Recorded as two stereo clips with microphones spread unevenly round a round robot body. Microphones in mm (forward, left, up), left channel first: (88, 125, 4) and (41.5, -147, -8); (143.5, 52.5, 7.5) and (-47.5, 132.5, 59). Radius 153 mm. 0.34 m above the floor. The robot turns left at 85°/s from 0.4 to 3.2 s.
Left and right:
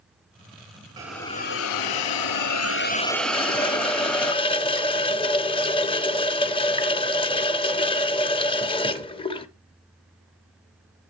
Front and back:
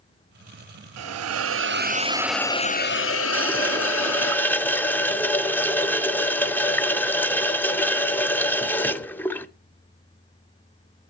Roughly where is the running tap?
Ahead.